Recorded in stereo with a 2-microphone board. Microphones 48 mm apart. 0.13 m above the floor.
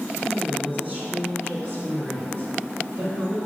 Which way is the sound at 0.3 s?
25° right (ahead or behind).